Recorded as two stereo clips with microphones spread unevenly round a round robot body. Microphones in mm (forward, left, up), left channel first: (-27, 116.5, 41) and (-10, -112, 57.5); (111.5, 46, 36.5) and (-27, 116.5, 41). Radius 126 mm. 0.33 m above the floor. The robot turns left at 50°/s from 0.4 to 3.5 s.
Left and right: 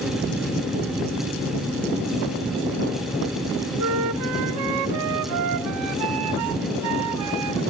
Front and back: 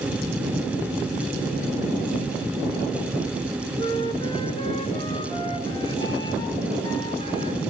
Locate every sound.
3.8 s a flute: 100° right, 0.8 m